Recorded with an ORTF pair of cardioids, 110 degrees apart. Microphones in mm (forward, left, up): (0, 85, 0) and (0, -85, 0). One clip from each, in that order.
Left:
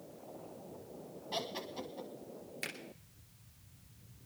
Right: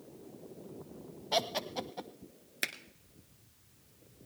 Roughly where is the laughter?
Ahead right.